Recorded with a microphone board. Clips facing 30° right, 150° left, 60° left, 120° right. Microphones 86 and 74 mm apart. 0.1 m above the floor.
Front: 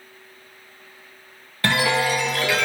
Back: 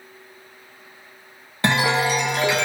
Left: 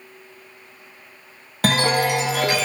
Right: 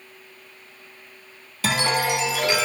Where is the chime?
85° left, 0.6 m.